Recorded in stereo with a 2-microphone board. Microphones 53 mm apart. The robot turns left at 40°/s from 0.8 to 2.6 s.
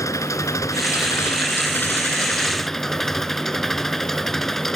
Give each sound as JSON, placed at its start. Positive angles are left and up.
{"t": 0.0, "sound": "an engine running", "azimuth_deg": 75}